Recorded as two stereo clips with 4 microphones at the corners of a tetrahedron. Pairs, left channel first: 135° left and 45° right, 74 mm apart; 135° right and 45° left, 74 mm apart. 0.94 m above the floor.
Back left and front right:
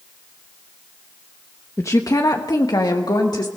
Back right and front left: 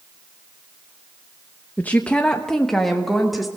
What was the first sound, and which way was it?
A woman speaking, 165° left.